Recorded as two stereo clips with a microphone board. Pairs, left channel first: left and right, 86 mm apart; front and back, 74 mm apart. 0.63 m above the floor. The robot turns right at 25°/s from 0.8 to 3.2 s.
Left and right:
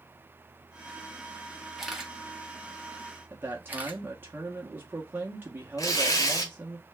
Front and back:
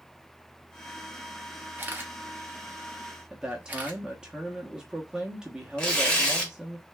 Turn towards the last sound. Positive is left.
turn(degrees=75)